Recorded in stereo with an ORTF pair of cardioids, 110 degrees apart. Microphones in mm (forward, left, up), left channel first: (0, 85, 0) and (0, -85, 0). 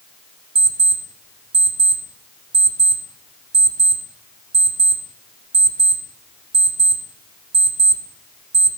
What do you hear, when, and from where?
0.6 s an alarm clock: 35° right, 2.5 m